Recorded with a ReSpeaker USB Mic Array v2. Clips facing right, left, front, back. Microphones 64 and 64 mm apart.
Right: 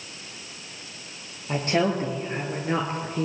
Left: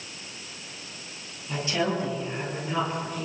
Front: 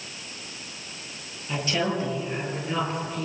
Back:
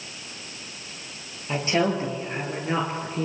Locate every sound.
1.5 s a woman speaking: 125° right, 6.5 m; by 3.2 s 135° right, 4.5 m